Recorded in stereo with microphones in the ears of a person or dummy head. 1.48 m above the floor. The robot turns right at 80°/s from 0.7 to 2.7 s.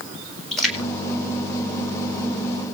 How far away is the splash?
About 7 m.